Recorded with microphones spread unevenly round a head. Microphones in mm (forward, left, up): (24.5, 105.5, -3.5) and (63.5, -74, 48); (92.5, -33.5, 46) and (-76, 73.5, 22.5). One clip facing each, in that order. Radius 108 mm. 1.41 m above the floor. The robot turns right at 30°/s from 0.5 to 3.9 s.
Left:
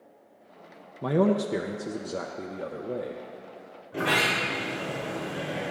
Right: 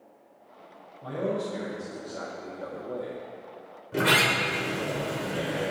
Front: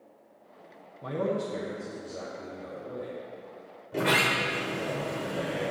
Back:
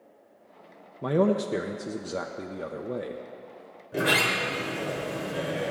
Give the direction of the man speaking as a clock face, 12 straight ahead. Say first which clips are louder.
Left 6 dB, back 6 dB; 8 o'clock.